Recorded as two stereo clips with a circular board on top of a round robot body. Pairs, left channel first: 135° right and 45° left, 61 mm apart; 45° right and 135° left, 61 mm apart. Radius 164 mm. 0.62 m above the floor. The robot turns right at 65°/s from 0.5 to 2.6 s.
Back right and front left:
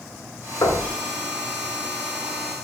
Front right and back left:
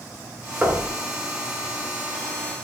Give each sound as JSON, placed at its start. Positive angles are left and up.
{"t": 0.6, "sound": "knocking", "azimuth_deg": -160, "distance_m": 2.0}